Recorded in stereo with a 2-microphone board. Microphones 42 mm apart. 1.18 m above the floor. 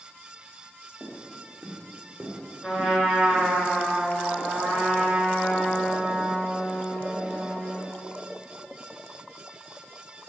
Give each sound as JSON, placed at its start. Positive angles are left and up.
{"t": 1.0, "sound": "footsteps", "side_deg": 5, "distance_m": 3.5}
{"t": 2.6, "sound": "a trumpet", "side_deg": 15, "distance_m": 3.0}